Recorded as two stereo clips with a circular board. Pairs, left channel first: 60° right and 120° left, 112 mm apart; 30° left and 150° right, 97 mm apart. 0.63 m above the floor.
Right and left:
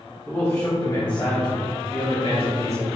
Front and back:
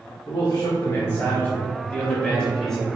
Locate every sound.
0.3 s a man speaking: 10° left, 1.6 m; by 2.9 s 55° right, 3.5 m